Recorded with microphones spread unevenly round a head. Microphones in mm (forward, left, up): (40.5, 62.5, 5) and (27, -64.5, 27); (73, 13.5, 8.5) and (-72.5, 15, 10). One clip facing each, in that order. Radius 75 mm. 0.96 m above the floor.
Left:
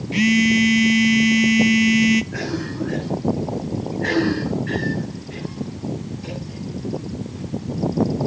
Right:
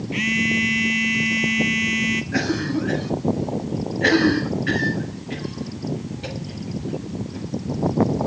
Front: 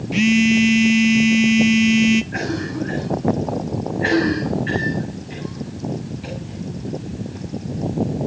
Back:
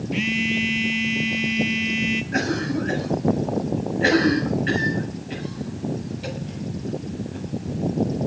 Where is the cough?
135° right, 8 m.